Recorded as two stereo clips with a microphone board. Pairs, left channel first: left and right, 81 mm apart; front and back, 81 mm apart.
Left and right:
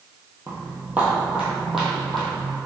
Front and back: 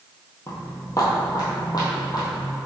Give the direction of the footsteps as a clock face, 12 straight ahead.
1 o'clock.